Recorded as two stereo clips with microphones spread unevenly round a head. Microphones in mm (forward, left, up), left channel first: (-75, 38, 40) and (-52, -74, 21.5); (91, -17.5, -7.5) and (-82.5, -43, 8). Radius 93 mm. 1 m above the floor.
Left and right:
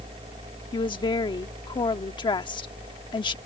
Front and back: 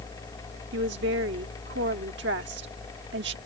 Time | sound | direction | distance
0.7 | a woman speaking | 150° left | ?